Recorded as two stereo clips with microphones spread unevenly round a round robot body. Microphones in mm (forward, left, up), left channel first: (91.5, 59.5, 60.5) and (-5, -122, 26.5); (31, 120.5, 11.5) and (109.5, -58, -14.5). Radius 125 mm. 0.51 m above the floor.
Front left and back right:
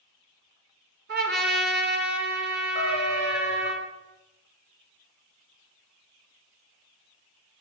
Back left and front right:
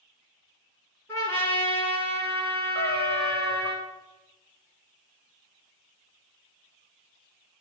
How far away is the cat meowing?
About 7 m.